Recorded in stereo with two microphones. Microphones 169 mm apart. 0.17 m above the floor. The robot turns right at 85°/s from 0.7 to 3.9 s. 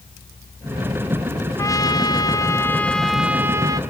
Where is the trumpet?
20° left (ahead or behind), 1.0 m; by 3.8 s 20° right (ahead or behind), 1.0 m.